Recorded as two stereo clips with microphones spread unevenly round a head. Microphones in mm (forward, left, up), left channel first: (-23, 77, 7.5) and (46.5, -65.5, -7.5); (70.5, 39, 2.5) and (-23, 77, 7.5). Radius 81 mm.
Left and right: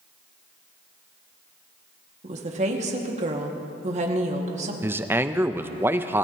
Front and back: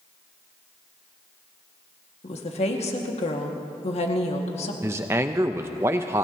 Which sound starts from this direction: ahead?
A woman speaking, at 2.2 s.